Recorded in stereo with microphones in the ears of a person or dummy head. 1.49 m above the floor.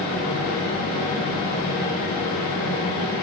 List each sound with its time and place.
0.0 s a fan: 20° left (ahead or behind), 1.8 m